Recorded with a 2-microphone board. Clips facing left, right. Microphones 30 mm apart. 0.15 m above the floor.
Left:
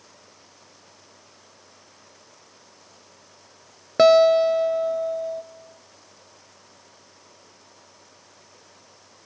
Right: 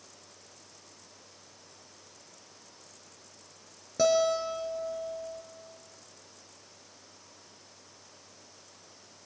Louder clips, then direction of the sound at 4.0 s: Left 11 dB; 65° left (ahead or behind).